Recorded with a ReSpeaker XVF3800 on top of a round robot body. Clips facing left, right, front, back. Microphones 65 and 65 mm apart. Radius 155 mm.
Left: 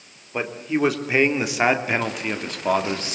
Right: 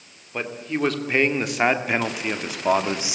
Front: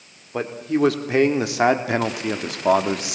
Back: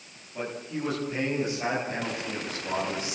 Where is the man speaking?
15° left, 3.5 m; by 3.2 s 10° right, 2.5 m.